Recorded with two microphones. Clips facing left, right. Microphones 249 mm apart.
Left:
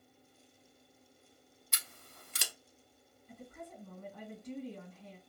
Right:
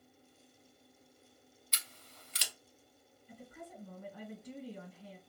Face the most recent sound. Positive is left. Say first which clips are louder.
# left 1 dB
turn(degrees=-5)  # may be behind; listen again after turning